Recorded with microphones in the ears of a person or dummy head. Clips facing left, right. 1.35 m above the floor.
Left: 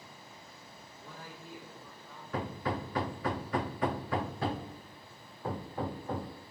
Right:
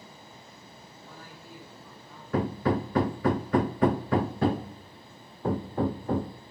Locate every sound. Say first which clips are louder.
1.0 s a man speaking: left 1 dB; 60° left (ahead or behind), 6 m; by 2.2 s 50° left (ahead or behind), 7.5 m
2.3 s hammering: right 9 dB; 30° right (ahead or behind), 0.6 m